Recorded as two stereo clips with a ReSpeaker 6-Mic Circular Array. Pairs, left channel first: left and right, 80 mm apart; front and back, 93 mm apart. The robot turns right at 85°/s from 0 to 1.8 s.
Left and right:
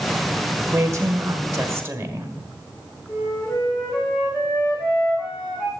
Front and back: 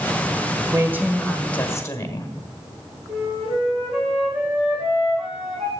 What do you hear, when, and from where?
0.7 s a woman speaking: 140° right, 1.6 m; by 2.3 s 45° right, 1.6 m
3.1 s a flute: 175° left, 7 m